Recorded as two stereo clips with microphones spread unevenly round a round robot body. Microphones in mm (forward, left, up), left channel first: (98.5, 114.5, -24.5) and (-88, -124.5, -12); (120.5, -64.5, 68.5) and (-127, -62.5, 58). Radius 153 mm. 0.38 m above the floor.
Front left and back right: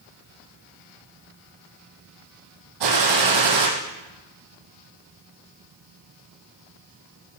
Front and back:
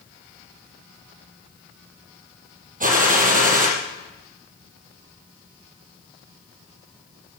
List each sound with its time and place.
2.8 s a gunshot: 125° right, 4.5 m